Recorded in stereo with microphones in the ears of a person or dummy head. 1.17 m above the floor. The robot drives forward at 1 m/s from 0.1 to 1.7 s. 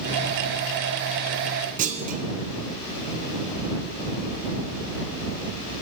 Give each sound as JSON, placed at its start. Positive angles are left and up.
{"t": 1.8, "sound": "a clunk", "side_deg": -40, "distance_m": 0.7}